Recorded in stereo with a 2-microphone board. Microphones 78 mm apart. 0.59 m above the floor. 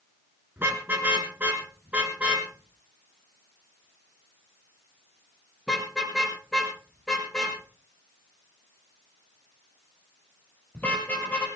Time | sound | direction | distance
0.6 | a car horn | 25° right (ahead or behind) | 4.5 m